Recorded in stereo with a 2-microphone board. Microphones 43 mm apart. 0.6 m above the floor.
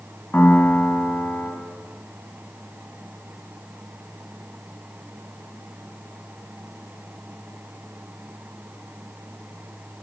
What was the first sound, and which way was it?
A piano, 40° left (ahead or behind).